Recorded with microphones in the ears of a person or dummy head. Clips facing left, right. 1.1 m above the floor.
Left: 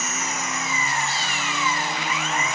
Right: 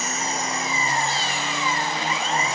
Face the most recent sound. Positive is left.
turn(degrees=-25)  # may be behind; listen again after turning